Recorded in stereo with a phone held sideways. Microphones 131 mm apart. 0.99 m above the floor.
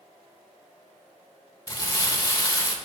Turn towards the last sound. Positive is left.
turn(degrees=25)  # may be behind; listen again after turning